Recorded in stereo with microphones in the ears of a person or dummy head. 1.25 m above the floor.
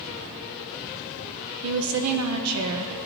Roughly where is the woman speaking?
Right.